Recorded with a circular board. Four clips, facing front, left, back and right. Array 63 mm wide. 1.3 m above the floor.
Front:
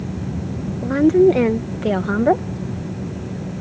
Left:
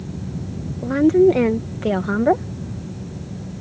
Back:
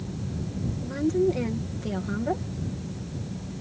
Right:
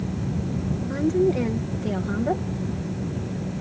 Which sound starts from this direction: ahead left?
A woman speaking, at 0.8 s.